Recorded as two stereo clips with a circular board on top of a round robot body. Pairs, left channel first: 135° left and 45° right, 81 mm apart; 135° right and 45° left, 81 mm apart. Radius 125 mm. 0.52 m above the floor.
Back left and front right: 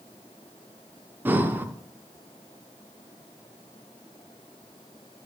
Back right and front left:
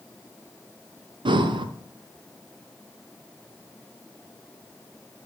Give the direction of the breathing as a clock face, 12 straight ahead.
11 o'clock.